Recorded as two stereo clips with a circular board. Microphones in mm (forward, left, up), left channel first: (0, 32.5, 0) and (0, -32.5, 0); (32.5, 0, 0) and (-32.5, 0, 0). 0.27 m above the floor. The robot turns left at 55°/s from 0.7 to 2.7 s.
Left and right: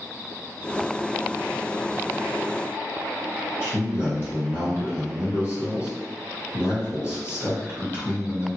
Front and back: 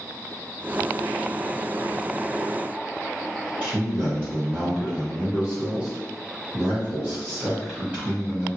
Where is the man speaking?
120° left, 1.6 m.